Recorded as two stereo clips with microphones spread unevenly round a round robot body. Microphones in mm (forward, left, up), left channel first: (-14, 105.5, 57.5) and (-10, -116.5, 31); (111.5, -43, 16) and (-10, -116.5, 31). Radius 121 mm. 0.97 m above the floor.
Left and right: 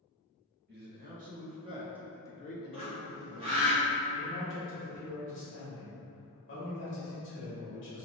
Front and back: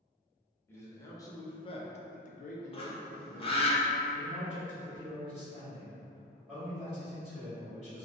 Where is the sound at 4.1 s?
120° left, 1.3 m.